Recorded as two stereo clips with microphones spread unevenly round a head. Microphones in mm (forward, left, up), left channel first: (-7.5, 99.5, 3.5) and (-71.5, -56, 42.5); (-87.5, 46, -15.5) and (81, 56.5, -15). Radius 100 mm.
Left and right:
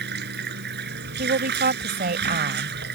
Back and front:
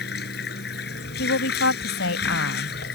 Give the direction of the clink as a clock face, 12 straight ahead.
I don't hear a clink.